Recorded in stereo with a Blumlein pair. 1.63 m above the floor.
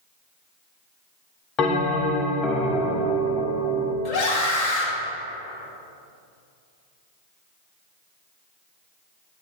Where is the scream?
30° left, 2.5 m.